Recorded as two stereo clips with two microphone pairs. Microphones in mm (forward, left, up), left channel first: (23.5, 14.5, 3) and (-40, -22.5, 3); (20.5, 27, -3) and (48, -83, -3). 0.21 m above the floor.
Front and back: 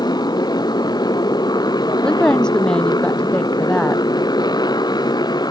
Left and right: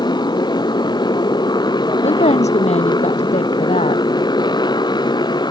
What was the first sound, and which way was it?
A motorcycle, 55° left.